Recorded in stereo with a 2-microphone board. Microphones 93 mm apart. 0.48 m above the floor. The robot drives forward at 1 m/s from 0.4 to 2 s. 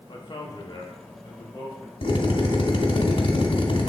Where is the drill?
85° left, 1.3 m.